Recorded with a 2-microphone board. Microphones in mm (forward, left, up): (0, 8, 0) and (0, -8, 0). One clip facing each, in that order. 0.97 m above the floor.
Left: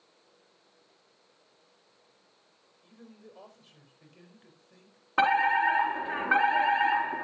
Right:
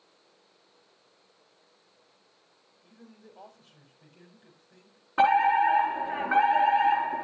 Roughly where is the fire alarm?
Left.